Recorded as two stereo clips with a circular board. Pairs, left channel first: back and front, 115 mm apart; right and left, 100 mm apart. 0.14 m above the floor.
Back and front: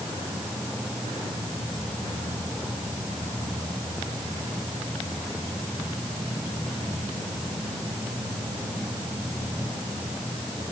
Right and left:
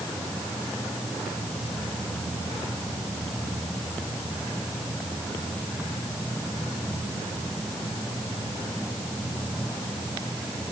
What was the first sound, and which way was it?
Only background noise.